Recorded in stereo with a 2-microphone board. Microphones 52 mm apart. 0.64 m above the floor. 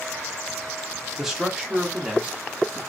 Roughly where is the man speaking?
Centre.